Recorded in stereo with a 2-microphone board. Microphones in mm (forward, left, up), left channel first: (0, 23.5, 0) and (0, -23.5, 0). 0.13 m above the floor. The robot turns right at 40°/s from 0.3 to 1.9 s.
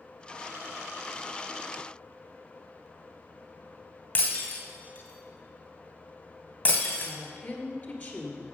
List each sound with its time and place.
4.2 s breaking glass: 35° left (ahead or behind), 2.5 m
7.0 s a woman speaking: 35° left (ahead or behind), 2 m